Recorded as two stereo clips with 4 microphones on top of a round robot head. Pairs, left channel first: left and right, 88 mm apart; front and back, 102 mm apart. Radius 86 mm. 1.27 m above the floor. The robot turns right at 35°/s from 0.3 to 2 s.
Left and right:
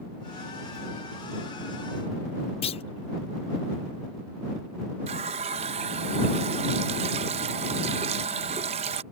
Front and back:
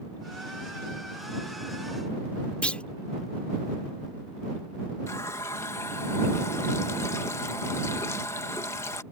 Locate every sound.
2.6 s a clunk: 80° left
5.1 s a running tap: 75° right